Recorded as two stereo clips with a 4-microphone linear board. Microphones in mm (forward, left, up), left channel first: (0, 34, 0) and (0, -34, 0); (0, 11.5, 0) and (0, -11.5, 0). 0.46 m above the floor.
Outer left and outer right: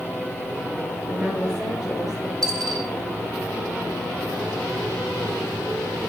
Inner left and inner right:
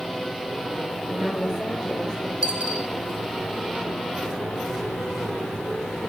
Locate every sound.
1.1 s a woman speaking: centre (ahead or behind), 9.5 m; by 2.3 s 5° right (ahead or behind), 10 m
2.4 s a dropped coin: 70° right (ahead or behind), 4.5 m